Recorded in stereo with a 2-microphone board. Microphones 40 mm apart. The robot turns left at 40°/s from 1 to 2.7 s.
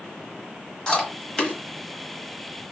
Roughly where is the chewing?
Centre.